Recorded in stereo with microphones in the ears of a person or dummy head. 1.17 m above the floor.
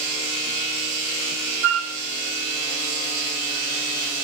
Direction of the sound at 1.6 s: 70° right (ahead or behind).